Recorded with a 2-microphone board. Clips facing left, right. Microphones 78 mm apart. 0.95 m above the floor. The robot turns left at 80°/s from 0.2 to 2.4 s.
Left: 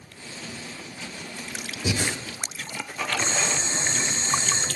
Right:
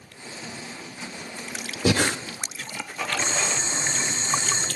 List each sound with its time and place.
1.9 s breathing: 70° right (ahead or behind), 0.5 m; by 2.2 s 60° right (ahead or behind), 0.5 m
3.2 s boiling: 15° right (ahead or behind), 3 m